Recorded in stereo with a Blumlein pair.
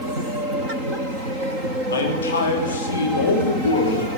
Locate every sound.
1.9 s a man speaking: 70° left, 3 m